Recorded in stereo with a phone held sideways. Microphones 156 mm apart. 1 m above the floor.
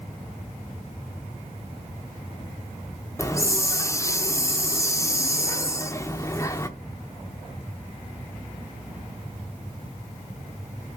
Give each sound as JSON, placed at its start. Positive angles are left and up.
{"t": 3.2, "sound": "a hiss", "side_deg": 20, "distance_m": 0.8}